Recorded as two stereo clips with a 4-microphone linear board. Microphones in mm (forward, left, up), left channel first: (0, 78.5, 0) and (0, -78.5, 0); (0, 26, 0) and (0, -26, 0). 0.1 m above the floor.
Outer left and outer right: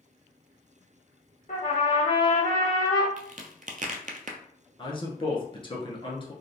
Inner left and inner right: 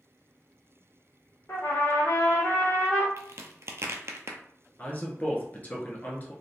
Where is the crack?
60° right (ahead or behind), 0.7 m.